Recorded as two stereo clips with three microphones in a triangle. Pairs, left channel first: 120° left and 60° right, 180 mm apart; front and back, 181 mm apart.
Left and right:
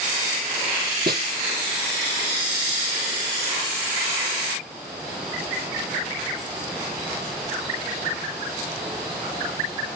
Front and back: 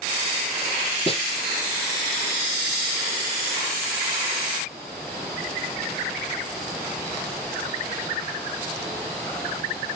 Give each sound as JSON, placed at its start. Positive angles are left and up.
{"t": 1.1, "sound": "a snare drum", "azimuth_deg": -50, "distance_m": 1.4}